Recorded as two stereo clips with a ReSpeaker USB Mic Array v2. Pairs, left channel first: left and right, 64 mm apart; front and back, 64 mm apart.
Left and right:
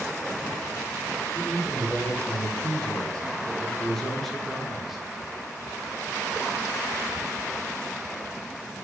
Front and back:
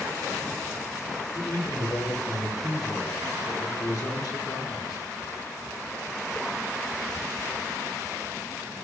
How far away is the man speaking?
About 4.5 m.